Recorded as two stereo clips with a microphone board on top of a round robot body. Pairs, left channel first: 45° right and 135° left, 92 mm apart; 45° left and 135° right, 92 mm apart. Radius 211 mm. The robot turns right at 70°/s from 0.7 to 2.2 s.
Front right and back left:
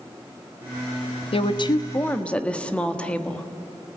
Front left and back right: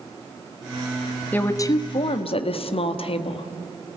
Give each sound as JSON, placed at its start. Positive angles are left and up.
{"t": 1.3, "sound": "a woman speaking", "azimuth_deg": -30, "distance_m": 1.6}